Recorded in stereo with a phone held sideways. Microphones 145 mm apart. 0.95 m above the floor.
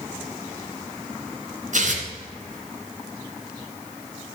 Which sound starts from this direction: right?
Tearing paper, at 1.7 s.